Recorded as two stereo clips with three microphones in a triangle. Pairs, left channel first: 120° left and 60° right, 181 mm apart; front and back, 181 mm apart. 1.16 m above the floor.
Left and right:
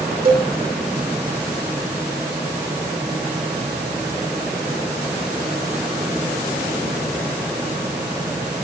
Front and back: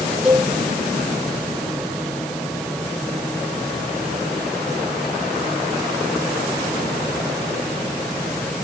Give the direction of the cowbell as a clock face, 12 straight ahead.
3 o'clock.